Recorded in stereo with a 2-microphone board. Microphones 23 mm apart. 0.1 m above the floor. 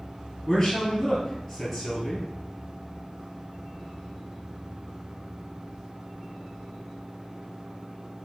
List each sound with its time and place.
0.5 s a man speaking: 15° left (ahead or behind), 1.8 m